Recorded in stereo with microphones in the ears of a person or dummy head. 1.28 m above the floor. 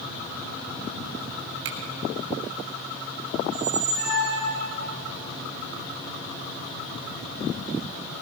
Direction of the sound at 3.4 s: 60° right (ahead or behind).